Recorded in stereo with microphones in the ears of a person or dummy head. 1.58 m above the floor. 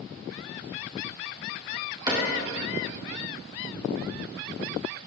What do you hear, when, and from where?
2.1 s a cupboard door: 20° right (ahead or behind), 1.7 m